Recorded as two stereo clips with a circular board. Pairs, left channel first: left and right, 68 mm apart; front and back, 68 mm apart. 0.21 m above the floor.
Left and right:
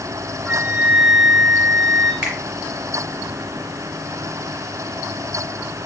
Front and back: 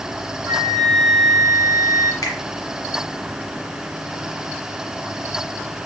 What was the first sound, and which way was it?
A flute, 165° right.